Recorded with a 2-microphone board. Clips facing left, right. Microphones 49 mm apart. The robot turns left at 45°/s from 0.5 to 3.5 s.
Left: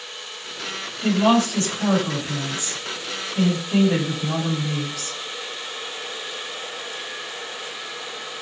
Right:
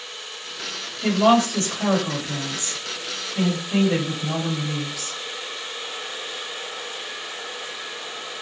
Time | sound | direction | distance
1.0 | a woman speaking | 50° right | 1.6 m